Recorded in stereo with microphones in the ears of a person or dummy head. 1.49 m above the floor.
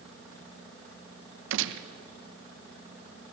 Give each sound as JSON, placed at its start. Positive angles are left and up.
{"t": 1.5, "sound": "a gunshot", "side_deg": -70, "distance_m": 1.3}